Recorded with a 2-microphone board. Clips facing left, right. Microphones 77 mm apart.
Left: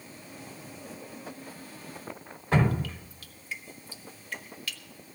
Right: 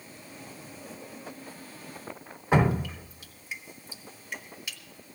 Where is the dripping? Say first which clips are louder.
Right 2 dB; 15° right (ahead or behind), 1.3 m.